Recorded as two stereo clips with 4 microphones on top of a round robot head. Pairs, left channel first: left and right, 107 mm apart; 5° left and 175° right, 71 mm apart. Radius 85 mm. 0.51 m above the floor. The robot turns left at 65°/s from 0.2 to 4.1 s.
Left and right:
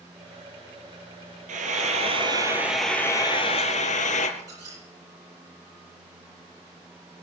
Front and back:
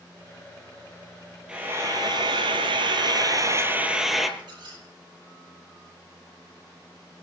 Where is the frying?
95° right, 3 m; by 4.3 s 95° left, 3 m.